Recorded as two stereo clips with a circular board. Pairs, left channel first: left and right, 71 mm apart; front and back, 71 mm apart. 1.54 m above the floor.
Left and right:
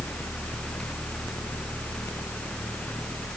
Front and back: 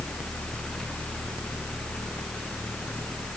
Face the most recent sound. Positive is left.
No sound to turn to.